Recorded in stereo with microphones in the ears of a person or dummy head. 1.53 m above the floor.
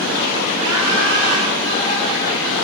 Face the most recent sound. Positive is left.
turn(degrees=-45)  # may be behind; listen again after turning